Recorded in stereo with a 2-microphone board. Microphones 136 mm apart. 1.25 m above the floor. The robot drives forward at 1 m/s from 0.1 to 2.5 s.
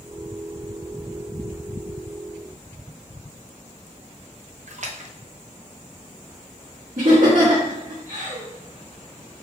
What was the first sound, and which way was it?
A splash, 60° right (ahead or behind).